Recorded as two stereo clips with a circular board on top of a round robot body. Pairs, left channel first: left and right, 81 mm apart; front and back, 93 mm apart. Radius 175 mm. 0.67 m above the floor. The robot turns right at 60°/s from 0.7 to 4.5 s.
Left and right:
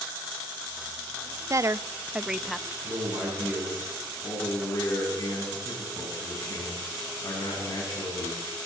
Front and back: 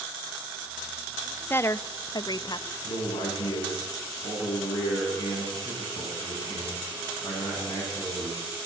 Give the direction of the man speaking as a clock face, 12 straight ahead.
2 o'clock.